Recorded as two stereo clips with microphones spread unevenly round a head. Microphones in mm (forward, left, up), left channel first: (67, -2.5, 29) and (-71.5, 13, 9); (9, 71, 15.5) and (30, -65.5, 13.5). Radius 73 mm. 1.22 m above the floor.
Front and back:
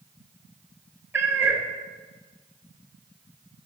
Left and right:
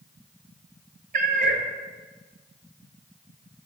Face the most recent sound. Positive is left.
turn(degrees=-105)